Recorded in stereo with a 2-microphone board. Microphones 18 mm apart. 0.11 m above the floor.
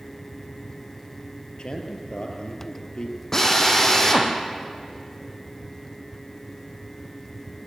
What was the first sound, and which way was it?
A man speaking, 50° left (ahead or behind).